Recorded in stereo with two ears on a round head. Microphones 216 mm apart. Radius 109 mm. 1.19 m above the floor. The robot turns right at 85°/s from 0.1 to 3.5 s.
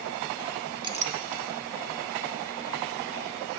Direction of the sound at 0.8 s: 20° right (ahead or behind).